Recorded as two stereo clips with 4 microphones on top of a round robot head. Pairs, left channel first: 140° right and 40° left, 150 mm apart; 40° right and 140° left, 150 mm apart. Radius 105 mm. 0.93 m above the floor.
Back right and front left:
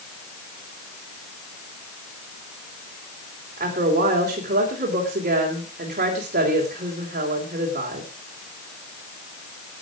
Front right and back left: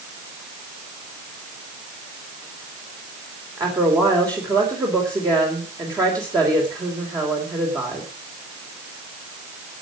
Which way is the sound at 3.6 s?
75° left.